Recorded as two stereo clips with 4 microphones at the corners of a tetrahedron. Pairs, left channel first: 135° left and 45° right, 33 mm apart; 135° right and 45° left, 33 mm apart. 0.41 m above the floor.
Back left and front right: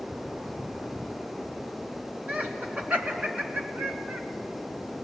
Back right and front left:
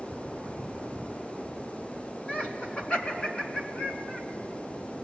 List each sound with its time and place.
2.3 s laughter: 85° right, 4.5 m